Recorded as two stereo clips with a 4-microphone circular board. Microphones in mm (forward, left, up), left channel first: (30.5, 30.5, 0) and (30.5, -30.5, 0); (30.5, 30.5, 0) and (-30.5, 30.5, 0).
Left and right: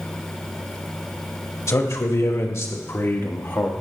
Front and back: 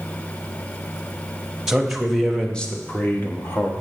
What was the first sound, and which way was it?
A man speaking, 95° left.